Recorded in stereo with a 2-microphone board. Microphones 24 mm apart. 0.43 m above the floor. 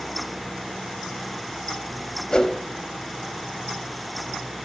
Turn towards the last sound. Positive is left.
turn(degrees=30)  # may be behind; listen again after turning